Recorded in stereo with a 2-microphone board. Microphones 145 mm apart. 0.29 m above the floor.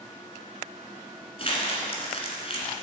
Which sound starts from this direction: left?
Crumpling, at 1.4 s.